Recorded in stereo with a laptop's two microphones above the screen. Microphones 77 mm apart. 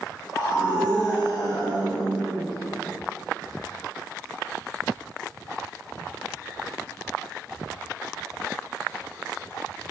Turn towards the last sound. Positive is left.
turn(degrees=70)  # may be behind; listen again after turning